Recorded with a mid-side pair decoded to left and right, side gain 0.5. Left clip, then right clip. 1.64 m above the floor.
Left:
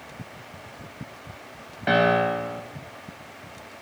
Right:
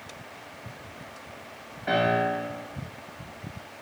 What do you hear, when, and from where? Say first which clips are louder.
1.9 s a piano: left 4 dB; 60° left, 1.2 m